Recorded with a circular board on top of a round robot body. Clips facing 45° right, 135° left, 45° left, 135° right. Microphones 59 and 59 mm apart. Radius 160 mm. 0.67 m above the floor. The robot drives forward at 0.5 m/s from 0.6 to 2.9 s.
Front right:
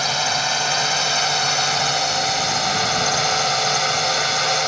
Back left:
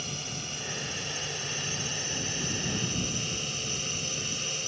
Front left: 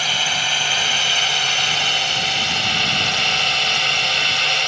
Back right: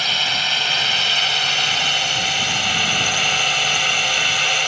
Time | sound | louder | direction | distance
0.0 | a drone | front right 18 dB, even | 40° right | ?